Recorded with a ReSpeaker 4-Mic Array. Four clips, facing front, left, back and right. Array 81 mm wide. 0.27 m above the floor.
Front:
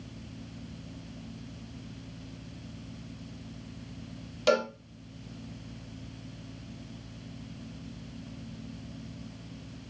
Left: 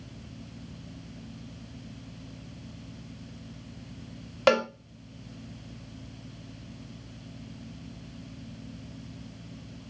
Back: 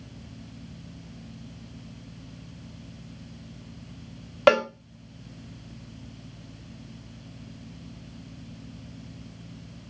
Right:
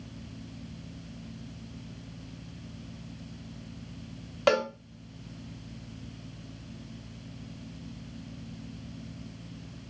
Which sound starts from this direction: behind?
A cowbell, at 4.5 s.